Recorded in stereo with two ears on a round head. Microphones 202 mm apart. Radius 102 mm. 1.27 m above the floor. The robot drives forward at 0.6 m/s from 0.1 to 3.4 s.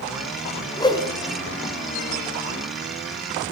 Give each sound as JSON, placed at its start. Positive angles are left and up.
{"t": 0.8, "sound": "a whoosh", "side_deg": 20, "distance_m": 3.0}